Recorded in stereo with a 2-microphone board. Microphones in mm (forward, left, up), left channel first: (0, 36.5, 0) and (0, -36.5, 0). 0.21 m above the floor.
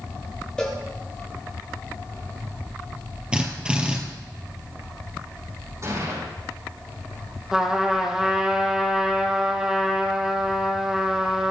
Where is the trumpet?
10° right (ahead or behind), 2.5 m.